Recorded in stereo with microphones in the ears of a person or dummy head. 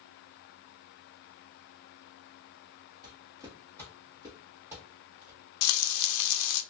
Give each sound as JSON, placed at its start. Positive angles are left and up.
{"t": 3.0, "sound": "footsteps", "side_deg": -20, "distance_m": 1.2}
{"t": 5.6, "sound": "frying", "side_deg": 80, "distance_m": 0.5}